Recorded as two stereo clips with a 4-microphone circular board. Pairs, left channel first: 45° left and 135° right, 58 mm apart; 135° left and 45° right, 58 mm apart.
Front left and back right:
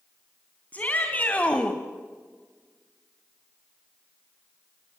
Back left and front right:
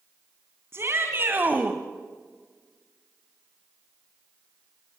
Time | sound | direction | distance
0.7 | a shout | 15° right | 2.5 m